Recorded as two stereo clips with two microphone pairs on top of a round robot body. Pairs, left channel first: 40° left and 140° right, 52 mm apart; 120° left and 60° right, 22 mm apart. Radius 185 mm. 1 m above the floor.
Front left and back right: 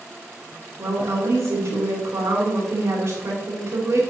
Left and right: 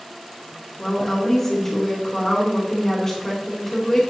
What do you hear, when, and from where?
0.8 s a woman speaking: 170° right, 3.5 m